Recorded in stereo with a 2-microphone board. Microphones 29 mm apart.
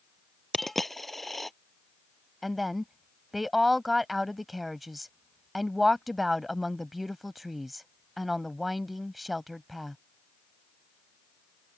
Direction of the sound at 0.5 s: 5° left (ahead or behind).